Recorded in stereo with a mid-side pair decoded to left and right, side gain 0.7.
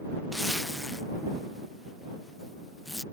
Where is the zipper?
5° left.